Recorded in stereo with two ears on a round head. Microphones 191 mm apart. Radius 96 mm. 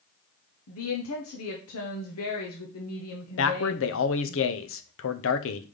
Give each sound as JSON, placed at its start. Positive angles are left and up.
{"t": 0.7, "sound": "a woman speaking", "side_deg": 75, "distance_m": 1.1}
{"t": 3.4, "sound": "a man speaking", "side_deg": 65, "distance_m": 0.8}